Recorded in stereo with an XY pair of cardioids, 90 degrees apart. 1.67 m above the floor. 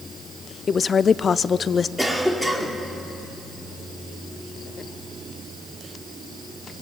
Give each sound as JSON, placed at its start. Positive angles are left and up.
{"t": 0.7, "sound": "a woman speaking", "azimuth_deg": 50, "distance_m": 0.6}
{"t": 2.0, "sound": "a cough", "azimuth_deg": 10, "distance_m": 4.5}